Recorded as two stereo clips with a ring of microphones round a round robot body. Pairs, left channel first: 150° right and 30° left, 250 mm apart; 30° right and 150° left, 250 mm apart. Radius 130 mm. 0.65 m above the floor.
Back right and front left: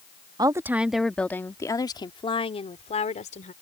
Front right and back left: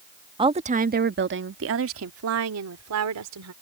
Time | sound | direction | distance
0.4 | a woman speaking | 95° left | ?